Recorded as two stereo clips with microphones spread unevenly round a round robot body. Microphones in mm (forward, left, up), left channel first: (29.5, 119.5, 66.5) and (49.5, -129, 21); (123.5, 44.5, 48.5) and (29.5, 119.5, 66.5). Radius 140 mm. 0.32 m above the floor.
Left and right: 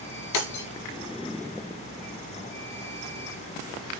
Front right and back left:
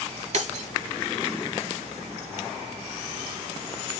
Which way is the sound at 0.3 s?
125° left.